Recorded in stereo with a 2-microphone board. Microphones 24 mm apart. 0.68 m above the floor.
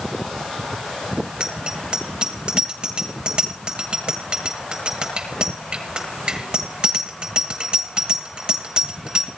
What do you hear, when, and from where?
1.4 s a bicycle bell: 45° right (ahead or behind), 8.5 m